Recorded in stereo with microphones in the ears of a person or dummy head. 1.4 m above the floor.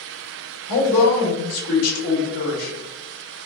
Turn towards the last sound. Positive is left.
turn(degrees=80)